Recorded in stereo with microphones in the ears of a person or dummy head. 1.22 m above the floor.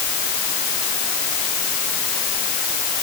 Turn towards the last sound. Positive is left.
No sound to turn to.